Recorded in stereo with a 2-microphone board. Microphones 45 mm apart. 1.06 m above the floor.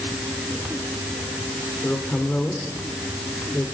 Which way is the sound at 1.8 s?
45° left (ahead or behind).